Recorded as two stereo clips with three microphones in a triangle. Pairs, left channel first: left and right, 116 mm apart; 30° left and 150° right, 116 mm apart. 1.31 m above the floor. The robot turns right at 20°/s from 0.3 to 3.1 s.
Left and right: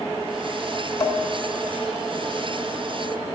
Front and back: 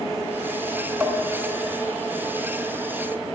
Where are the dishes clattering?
140° left, 1.3 m; by 1.2 s 145° left, 1.3 m.